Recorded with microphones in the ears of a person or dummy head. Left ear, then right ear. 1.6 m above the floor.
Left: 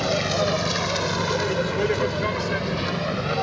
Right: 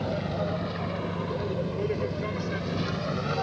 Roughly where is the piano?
No piano in this recording.